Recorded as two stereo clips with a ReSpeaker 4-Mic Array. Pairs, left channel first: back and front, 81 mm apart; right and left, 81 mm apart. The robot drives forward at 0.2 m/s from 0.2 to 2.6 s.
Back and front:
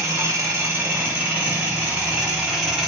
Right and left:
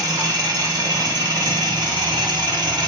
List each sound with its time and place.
0.0 s an engine running: 55° left, 1.1 m; by 2.9 s 85° left, 0.9 m